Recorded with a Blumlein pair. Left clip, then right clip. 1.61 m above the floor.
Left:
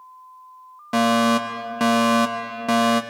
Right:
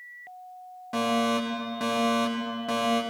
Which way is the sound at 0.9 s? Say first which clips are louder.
Left 7 dB; 25° left.